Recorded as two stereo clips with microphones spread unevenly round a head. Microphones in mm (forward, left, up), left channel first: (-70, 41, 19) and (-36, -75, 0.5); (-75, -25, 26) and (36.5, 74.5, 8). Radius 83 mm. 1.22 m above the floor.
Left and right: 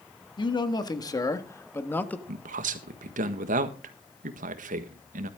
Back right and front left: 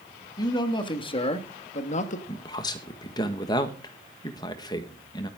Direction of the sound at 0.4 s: 160° left.